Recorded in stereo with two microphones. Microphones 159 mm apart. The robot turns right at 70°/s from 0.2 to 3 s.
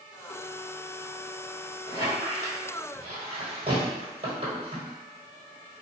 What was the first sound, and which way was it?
A squeak, 40° left (ahead or behind).